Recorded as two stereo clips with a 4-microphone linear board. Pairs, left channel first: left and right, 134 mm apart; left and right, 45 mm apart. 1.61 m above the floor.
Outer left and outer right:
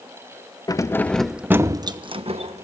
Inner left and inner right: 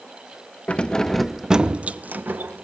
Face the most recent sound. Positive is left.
turn(degrees=-55)  # may be behind; listen again after turning